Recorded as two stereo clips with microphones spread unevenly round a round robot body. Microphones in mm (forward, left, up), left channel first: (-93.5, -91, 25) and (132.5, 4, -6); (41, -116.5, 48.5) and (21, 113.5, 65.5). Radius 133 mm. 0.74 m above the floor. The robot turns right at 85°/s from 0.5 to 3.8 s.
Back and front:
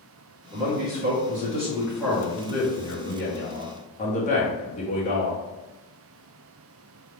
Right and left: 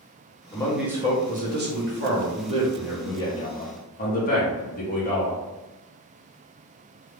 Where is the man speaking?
20° right, 1.4 m; by 5.4 s 100° right, 1.4 m.